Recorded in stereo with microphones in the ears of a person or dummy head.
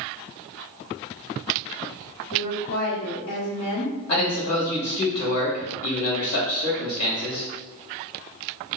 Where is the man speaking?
80° left, 2.0 m.